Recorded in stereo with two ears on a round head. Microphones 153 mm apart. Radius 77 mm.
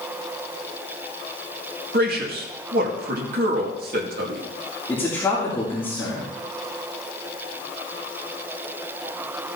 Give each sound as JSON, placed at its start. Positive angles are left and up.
{"t": 1.9, "sound": "a man speaking", "side_deg": -60, "distance_m": 2.0}
{"t": 4.9, "sound": "a man speaking", "side_deg": 15, "distance_m": 3.0}